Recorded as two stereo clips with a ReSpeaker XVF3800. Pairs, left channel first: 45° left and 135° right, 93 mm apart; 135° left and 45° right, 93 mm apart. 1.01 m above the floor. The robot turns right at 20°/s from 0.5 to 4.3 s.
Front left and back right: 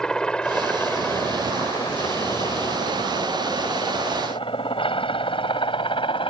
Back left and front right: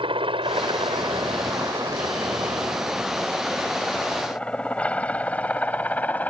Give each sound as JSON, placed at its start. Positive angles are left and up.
{"t": 0.0, "sound": "a helicopter", "azimuth_deg": -35}